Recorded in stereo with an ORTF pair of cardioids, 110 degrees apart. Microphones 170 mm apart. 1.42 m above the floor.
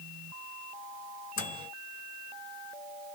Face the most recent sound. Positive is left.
turn(degrees=55)